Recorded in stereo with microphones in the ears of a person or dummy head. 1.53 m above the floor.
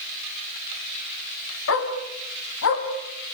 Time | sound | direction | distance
1.7 | a dog barking | 70° left (ahead or behind) | 4 m